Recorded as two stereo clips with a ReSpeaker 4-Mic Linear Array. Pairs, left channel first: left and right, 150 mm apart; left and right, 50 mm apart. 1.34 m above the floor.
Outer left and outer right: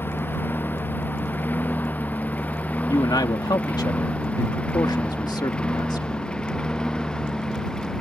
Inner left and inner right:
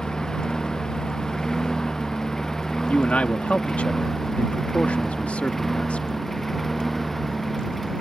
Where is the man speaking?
30° left (ahead or behind).